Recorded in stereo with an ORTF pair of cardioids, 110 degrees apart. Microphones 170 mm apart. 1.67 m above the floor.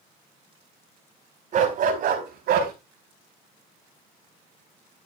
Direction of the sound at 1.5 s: 50° right.